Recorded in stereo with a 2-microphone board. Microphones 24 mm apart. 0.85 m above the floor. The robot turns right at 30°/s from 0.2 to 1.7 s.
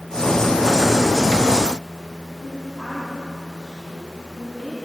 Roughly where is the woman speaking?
Left.